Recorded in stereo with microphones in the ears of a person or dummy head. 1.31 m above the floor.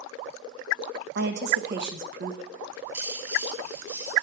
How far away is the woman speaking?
About 1.8 m.